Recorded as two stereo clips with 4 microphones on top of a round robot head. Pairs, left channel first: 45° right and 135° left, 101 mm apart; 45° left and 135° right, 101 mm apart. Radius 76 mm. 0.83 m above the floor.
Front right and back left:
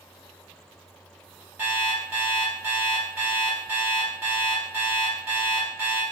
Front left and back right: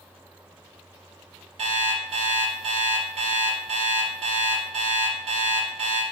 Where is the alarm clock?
150° right, 1.2 m.